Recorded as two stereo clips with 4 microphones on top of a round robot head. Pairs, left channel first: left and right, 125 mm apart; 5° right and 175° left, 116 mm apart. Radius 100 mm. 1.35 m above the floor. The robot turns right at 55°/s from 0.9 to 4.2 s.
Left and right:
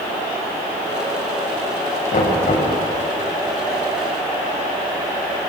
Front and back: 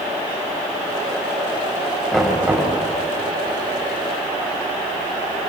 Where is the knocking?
80° left, 7 m; by 2.7 s 115° left, 7 m.